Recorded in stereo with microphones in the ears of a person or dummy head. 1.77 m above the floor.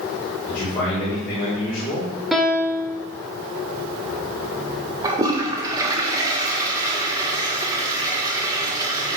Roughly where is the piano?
Centre.